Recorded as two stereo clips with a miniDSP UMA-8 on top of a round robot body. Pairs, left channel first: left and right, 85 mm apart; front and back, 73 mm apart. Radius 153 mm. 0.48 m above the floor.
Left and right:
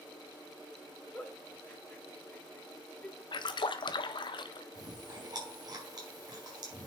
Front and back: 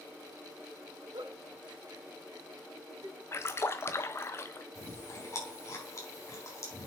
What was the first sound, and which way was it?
A giggle, 165° left.